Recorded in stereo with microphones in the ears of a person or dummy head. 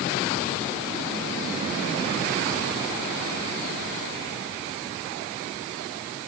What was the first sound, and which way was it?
Only background noise.